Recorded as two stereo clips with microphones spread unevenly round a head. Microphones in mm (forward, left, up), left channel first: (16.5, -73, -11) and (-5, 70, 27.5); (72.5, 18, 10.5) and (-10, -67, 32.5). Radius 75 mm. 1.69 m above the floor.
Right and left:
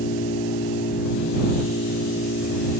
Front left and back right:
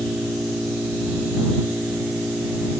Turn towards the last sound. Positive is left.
turn(degrees=-50)